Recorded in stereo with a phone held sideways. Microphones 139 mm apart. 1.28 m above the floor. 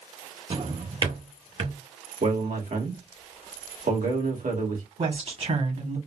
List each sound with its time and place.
0.5 s a drawer: 45° right (ahead or behind), 1.0 m
2.2 s a man speaking: 75° right (ahead or behind), 1.5 m
5.0 s a woman speaking: 55° right (ahead or behind), 1.3 m